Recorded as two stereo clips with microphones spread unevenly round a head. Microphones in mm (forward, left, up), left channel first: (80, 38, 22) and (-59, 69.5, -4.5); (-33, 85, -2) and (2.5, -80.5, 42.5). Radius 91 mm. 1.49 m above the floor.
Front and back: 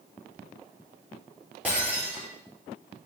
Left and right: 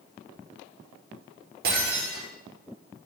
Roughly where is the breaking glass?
Right.